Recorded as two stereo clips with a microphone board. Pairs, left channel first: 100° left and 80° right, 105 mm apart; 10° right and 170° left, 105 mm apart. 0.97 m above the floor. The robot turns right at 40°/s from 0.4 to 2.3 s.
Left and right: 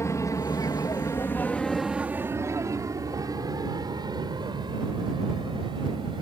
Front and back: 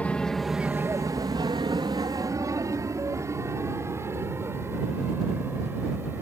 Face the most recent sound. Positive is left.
turn(degrees=-120)